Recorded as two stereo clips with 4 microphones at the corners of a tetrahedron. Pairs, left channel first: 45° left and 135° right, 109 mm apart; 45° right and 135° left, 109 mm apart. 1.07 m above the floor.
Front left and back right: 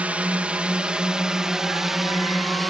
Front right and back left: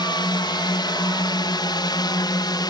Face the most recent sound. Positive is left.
turn(degrees=-45)